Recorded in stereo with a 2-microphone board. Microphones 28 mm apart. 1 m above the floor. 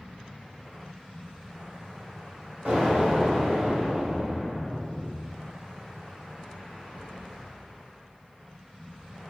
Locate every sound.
2.6 s an explosion: 60° right (ahead or behind), 1.1 m